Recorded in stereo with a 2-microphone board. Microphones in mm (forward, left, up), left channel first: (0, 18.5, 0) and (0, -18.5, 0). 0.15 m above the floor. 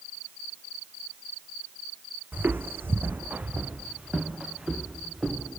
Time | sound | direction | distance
2.3 | footsteps | 60° right (ahead or behind) | 0.6 m